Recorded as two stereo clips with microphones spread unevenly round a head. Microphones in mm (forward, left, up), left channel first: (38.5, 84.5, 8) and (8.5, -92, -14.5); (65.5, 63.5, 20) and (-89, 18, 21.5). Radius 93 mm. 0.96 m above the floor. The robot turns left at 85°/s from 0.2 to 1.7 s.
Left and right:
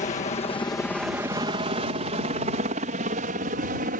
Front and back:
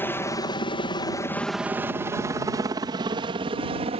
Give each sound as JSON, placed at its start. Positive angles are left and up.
{"t": 0.0, "sound": "a helicopter", "azimuth_deg": 80}